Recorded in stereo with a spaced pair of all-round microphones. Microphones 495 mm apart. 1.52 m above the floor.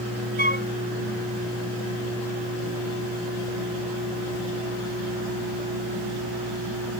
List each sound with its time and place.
0.4 s a flute: 65° right (ahead or behind)